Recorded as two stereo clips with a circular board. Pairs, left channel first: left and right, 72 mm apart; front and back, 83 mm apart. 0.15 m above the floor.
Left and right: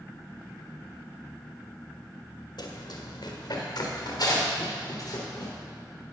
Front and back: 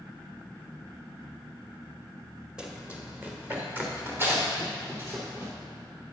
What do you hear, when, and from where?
2.6 s running footsteps: 100° left, 1.8 m; by 5.5 s 120° left, 4 m